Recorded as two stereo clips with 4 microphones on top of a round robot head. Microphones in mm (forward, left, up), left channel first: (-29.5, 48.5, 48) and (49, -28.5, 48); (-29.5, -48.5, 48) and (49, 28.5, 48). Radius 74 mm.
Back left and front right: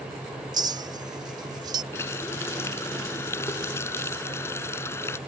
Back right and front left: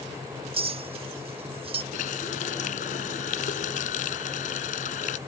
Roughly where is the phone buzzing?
No phone buzzing in this recording.